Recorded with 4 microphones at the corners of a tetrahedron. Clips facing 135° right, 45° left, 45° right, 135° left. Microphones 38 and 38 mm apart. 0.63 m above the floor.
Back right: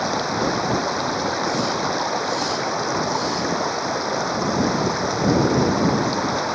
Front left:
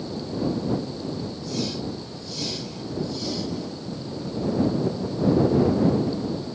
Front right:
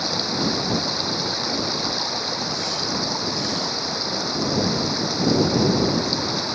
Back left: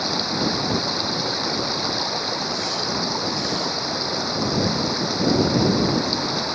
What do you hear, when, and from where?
0.0 s running water: 140° right